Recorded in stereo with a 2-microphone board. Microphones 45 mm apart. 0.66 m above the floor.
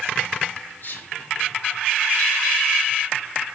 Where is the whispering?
55° left (ahead or behind), 1.0 m.